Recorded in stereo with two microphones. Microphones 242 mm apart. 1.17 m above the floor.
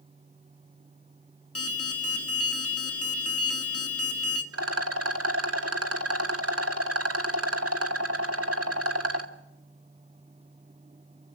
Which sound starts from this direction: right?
A rattle, at 4.5 s.